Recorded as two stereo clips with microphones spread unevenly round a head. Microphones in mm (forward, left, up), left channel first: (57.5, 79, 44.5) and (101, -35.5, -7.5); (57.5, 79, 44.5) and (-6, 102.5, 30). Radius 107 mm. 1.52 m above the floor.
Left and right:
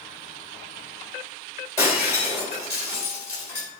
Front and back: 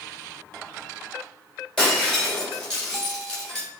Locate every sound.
1.8 s breaking glass: 55° left, 3.5 m